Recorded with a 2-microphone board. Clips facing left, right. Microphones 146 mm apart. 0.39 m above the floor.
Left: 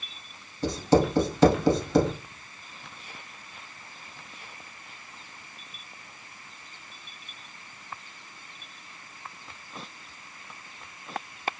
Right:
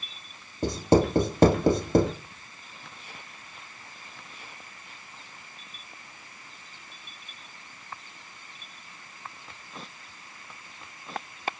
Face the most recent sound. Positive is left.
turn(degrees=-50)  # may be behind; listen again after turning